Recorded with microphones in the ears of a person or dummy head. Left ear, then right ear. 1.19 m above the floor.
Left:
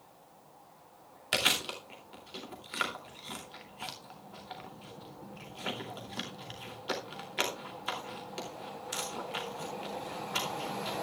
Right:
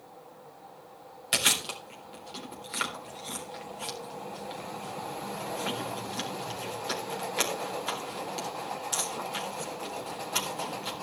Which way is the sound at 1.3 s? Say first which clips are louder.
Right 2 dB; 10° left (ahead or behind).